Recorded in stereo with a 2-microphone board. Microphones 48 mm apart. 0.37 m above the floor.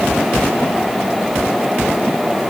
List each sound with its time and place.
Only background noise.